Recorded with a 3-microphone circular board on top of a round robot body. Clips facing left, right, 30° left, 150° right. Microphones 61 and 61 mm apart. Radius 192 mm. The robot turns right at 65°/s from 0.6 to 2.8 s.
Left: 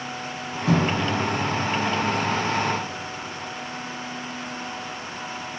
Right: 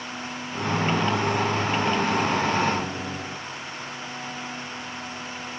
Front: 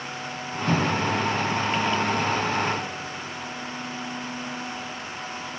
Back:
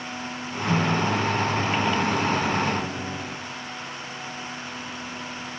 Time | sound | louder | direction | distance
0.7 | a microwave | left 1 dB, back 1 dB | 90° left | 4.5 m